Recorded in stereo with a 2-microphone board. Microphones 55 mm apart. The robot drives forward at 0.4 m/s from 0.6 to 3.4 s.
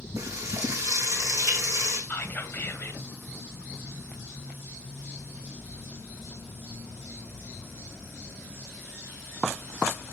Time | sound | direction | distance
0.2 | frying | 75° right (ahead or behind) | 5.5 m
2.1 | whispering | 40° left (ahead or behind) | 2.5 m